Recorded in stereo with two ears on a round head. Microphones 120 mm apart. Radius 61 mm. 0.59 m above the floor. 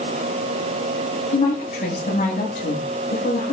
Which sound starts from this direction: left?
A woman speaking, at 1.3 s.